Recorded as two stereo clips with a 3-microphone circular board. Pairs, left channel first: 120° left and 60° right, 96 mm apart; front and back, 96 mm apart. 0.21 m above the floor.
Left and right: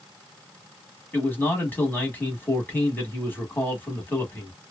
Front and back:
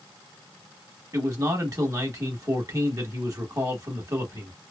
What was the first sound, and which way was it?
A man speaking, 175° left.